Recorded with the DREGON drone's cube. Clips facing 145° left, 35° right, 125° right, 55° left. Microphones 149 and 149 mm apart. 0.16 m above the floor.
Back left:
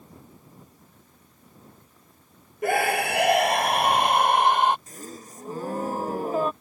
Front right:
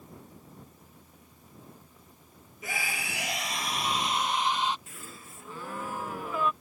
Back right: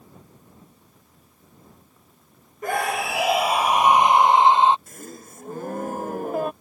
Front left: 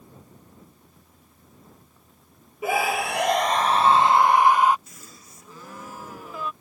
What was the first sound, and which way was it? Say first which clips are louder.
A scream: back left 15 dB, front left 1 dB; 140° left.